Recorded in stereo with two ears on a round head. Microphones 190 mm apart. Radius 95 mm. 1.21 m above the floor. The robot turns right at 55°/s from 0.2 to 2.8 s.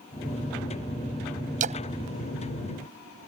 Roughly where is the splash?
Right.